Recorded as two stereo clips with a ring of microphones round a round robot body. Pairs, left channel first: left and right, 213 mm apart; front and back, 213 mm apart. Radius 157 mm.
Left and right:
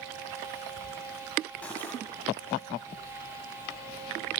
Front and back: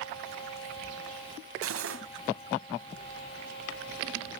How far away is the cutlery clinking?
About 2.0 m.